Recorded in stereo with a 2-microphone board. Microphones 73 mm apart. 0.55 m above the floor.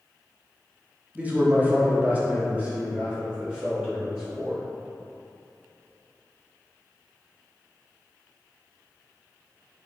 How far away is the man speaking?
About 0.6 m.